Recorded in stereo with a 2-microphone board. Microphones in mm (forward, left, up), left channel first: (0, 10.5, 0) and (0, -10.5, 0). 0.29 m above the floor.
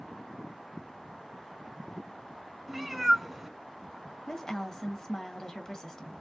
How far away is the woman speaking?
About 1.5 m.